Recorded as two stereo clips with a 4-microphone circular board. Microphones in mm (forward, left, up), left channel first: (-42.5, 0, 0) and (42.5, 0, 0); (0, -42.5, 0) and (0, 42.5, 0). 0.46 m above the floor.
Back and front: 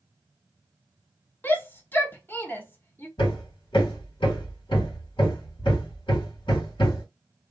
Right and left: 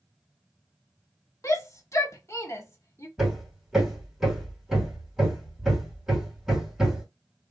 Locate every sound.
1.4 s a shout: 125° right, 1.0 m
3.2 s hammering: 175° left, 2.5 m